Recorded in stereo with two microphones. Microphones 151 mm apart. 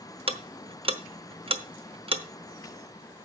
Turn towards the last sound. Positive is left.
turn(degrees=-40)  # may be behind; listen again after turning